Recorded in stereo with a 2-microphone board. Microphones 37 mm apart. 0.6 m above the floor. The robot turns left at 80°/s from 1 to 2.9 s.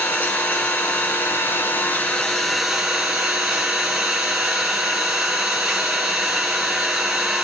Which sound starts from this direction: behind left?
An engine running, at 0.0 s.